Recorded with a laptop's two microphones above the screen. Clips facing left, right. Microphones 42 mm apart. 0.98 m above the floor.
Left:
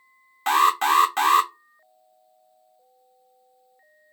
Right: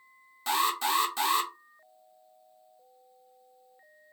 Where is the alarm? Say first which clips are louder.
Left 9 dB; 50° left (ahead or behind), 0.6 m.